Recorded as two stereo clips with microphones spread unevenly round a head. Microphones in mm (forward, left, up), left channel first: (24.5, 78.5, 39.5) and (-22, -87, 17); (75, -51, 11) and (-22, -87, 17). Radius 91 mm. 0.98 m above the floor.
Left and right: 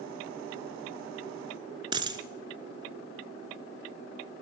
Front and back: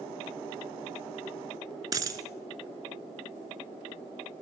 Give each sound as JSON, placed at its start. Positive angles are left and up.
{"t": 1.9, "sound": "a dropped coin", "azimuth_deg": -170, "distance_m": 1.1}